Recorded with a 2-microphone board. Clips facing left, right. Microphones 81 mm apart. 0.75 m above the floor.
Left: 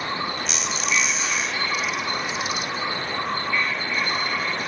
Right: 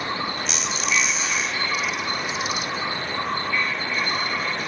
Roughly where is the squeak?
Centre.